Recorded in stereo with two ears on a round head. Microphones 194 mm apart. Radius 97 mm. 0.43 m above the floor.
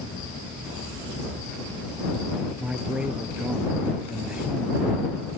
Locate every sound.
2.6 s a man speaking: 5° right (ahead or behind)